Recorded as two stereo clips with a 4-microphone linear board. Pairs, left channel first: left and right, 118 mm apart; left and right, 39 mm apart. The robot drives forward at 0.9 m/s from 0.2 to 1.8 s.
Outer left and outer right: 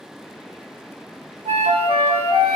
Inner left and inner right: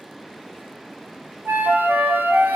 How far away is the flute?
About 1.3 m.